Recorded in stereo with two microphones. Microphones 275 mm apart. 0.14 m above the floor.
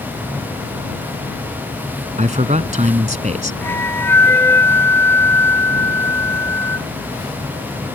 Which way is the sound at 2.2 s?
25° right (ahead or behind).